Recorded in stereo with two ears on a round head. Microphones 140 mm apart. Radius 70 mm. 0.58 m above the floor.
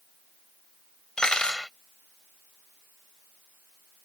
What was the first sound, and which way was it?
Cutlery clinking, 5° left (ahead or behind).